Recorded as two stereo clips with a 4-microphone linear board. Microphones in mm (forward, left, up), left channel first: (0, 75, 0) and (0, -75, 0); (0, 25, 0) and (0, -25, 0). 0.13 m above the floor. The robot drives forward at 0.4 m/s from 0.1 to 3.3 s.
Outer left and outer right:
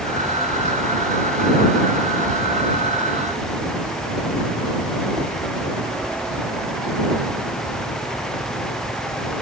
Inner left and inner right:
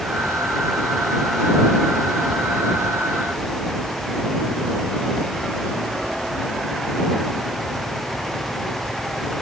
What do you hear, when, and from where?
Only background noise.